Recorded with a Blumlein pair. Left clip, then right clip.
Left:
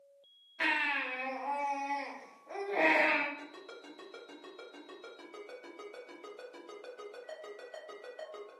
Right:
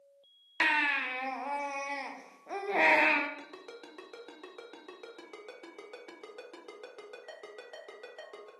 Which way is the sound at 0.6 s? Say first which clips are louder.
Right 3 dB; 65° right.